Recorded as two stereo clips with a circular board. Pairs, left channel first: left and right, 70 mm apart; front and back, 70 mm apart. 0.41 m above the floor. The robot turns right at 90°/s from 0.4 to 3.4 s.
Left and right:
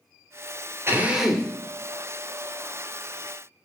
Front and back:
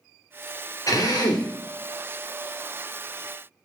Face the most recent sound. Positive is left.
turn(degrees=-170)